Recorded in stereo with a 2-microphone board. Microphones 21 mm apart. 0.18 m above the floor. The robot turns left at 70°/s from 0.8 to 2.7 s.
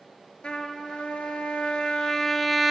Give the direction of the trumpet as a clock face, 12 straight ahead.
8 o'clock.